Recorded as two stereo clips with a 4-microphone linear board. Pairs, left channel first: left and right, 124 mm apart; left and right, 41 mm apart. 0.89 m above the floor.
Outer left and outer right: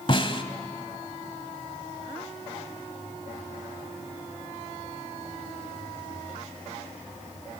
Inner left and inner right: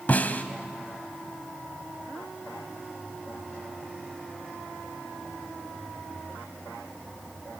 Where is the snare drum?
45° left (ahead or behind), 1.3 m.